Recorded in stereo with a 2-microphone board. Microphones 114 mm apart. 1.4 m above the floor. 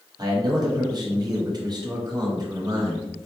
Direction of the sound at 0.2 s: 40° right (ahead or behind).